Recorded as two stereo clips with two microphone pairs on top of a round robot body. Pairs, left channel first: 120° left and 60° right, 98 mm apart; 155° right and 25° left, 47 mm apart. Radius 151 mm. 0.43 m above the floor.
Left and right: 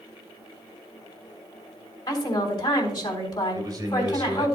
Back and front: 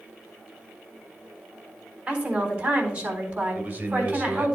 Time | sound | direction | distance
2.1 | a woman speaking | 80° left | 3.5 m
3.5 | a man speaking | 10° right | 3 m